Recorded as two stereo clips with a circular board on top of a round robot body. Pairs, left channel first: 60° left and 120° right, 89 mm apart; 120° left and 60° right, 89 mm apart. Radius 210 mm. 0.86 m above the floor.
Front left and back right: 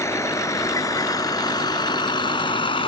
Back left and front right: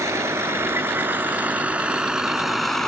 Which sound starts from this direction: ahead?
A vehicle, at 0.0 s.